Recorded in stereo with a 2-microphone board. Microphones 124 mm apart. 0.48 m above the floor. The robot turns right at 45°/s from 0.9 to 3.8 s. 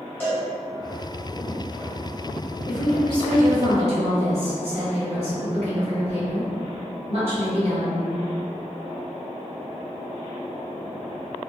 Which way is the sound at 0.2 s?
15° left (ahead or behind).